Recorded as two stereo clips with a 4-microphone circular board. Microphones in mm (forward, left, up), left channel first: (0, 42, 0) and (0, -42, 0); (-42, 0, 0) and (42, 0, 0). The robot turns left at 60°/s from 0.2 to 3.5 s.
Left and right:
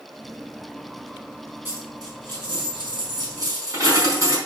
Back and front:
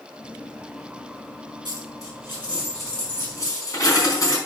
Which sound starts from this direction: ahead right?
A dropped coin, at 1.6 s.